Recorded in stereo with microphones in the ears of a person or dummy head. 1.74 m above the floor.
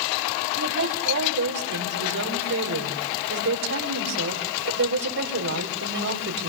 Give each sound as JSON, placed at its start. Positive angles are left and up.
{"t": 0.6, "sound": "a woman speaking", "side_deg": -65, "distance_m": 5.0}